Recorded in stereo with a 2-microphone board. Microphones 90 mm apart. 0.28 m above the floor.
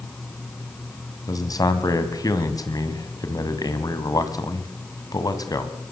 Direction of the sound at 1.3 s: 45° left (ahead or behind).